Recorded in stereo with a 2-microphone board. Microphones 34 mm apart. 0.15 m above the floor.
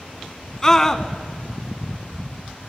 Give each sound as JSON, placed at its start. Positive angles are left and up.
{"t": 0.6, "sound": "a scream", "side_deg": 15, "distance_m": 1.0}